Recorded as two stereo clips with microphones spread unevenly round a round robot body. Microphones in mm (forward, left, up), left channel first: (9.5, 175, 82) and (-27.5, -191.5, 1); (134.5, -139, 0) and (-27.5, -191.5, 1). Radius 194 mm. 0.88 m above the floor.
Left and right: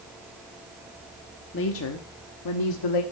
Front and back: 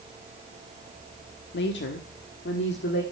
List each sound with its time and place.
1.5 s a woman speaking: 20° left, 1.4 m; by 3.0 s 55° left, 1.7 m